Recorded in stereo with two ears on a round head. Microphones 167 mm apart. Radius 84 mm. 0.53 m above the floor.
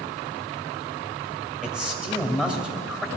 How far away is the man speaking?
About 2.5 m.